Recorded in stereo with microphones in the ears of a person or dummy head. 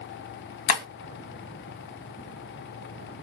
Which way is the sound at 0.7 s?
60° left (ahead or behind).